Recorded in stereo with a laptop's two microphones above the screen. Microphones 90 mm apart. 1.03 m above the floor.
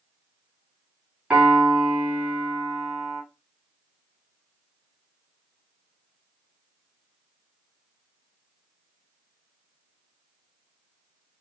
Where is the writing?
I don't hear writing.